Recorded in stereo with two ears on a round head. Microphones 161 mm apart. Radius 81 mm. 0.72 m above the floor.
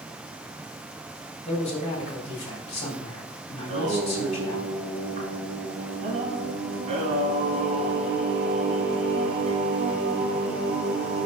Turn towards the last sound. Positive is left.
turn(degrees=-40)  # may be behind; listen again after turning